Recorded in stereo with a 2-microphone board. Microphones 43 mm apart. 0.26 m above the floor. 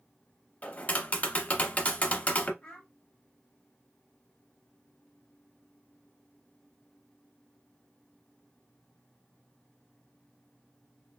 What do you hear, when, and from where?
0.6 s tapping: 30° left (ahead or behind), 0.7 m
2.6 s a child speaking: 25° left (ahead or behind), 0.9 m